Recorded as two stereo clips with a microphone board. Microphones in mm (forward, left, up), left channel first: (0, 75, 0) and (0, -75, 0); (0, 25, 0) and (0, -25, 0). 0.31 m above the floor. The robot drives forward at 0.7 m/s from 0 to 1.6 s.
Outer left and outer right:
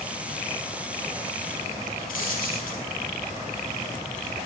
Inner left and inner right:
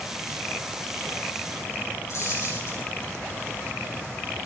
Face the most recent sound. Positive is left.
turn(degrees=65)  # may be behind; listen again after turning